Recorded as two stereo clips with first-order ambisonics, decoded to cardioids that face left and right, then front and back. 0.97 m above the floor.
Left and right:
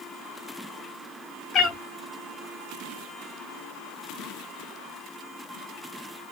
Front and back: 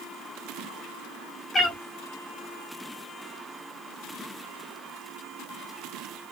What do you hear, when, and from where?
1.5 s a cat meowing: 65° left, 0.6 m